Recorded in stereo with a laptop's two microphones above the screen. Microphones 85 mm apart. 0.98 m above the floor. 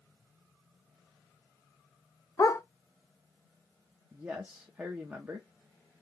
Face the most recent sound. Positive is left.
turn(degrees=-20)  # may be behind; listen again after turning